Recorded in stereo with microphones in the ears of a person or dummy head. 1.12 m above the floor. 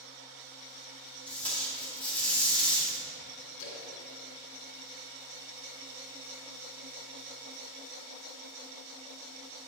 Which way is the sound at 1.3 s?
5° left (ahead or behind).